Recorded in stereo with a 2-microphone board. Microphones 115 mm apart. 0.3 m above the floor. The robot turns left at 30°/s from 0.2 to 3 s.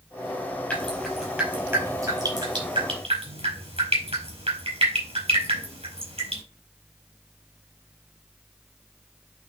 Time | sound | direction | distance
0.7 | dripping | 10° left (ahead or behind) | 4.5 m